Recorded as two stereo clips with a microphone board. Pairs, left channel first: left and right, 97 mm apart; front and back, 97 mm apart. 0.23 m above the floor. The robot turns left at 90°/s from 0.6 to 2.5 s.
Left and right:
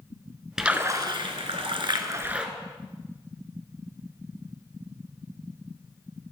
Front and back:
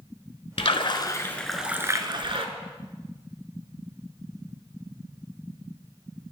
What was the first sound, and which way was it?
A splash, 5° right.